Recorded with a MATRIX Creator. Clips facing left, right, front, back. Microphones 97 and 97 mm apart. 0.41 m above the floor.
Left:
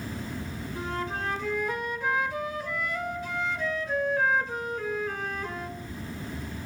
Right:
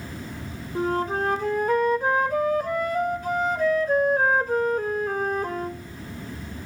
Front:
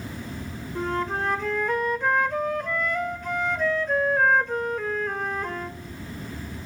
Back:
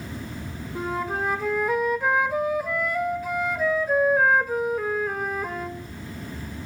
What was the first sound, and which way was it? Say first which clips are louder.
A flute: right 9 dB, front 1 dB; 100° right.